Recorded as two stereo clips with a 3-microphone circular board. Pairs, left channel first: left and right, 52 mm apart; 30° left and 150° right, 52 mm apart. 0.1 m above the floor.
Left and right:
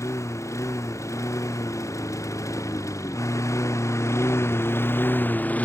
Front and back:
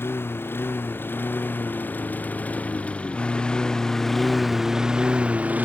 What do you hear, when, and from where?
0.0 s a lawn mower: 75° left; by 5.7 s 150° left